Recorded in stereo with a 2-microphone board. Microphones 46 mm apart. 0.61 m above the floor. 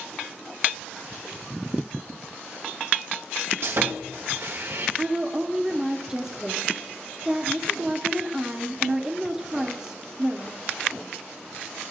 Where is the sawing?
60° right (ahead or behind), 1.3 m.